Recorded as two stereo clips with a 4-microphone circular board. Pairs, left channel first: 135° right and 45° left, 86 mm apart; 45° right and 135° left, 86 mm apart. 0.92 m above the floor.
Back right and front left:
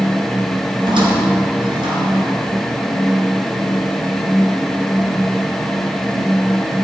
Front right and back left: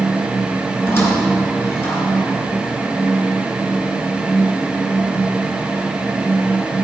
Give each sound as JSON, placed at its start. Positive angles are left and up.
{"t": 0.8, "sound": "a squeak", "azimuth_deg": 15, "distance_m": 4.5}